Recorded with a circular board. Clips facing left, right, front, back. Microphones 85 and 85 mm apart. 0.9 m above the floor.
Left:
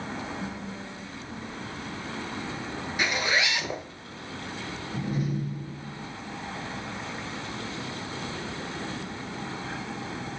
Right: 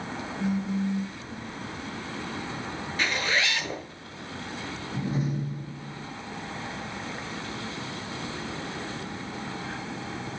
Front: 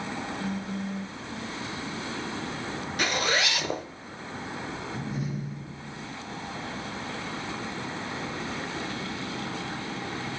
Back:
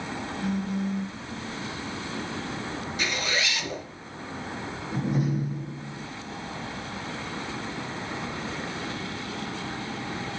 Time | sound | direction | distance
0.4 | a phone buzzing | 150° left | 1.7 m
3.0 | a zipper | 15° left | 1.0 m
4.9 | a door slam | 150° right | 1.0 m